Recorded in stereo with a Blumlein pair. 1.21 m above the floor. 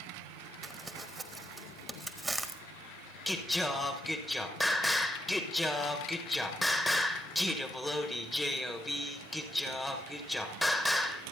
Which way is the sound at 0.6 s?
10° right.